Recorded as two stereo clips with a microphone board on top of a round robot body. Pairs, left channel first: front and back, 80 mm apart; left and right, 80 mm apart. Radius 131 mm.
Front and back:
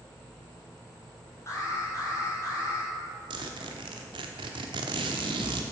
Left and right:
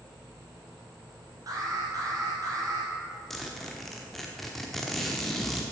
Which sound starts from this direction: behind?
A zipper, at 3.3 s.